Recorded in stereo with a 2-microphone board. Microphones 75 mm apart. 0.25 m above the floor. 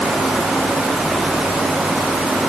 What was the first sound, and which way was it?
Only background noise.